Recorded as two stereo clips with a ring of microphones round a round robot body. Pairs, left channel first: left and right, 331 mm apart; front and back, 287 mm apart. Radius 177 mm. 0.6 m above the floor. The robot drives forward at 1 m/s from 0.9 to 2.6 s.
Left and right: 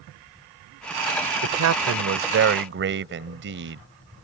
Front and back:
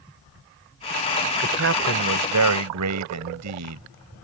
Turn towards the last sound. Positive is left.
turn(degrees=-145)